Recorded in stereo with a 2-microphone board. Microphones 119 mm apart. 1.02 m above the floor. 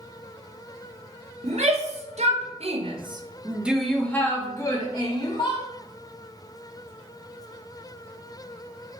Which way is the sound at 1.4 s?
65° right (ahead or behind).